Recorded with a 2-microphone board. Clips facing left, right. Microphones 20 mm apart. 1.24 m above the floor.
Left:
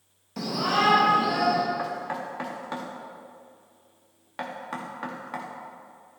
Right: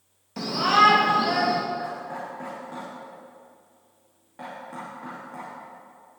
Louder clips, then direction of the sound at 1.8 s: Left 2 dB; 65° left (ahead or behind).